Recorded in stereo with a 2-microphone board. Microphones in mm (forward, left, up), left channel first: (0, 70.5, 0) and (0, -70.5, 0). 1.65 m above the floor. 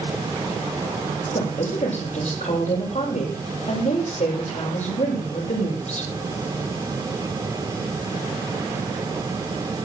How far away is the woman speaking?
About 7.5 m.